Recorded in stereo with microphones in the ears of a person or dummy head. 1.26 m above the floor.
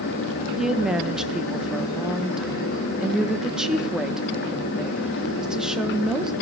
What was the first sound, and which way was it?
A woman speaking, centre (ahead or behind).